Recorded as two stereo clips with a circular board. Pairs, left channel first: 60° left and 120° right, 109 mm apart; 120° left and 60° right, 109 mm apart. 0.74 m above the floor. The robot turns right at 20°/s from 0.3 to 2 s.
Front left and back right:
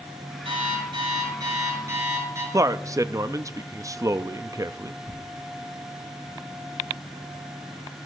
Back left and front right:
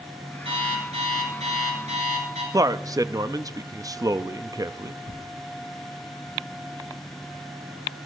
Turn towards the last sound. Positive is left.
turn(degrees=120)